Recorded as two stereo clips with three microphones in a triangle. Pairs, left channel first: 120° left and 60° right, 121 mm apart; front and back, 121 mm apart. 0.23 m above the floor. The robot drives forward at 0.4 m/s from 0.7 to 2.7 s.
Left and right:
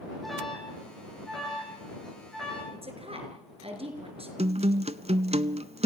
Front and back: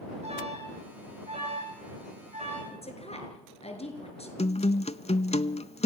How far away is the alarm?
About 9.5 m.